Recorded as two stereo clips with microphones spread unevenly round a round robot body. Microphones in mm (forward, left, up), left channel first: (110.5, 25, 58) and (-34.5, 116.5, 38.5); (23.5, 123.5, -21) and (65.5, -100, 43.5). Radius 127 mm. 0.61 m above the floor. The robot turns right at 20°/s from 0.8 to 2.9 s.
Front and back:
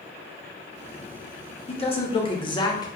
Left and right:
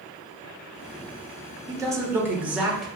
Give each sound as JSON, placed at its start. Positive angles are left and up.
{"t": 1.7, "sound": "a man speaking", "azimuth_deg": 5, "distance_m": 1.0}